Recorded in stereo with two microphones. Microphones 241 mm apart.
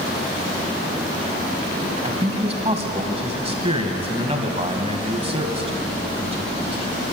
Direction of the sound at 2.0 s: 25° right (ahead or behind).